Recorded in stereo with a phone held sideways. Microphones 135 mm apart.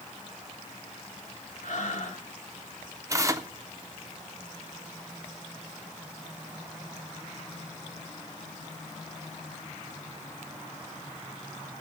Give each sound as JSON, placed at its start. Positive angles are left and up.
{"t": 1.6, "sound": "breathing", "side_deg": 70, "distance_m": 2.5}
{"t": 3.1, "sound": "tearing paper", "side_deg": -25, "distance_m": 0.7}